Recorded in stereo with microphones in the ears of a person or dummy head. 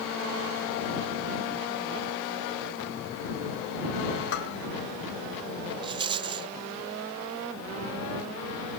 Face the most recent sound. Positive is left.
turn(degrees=-20)  # may be behind; listen again after turning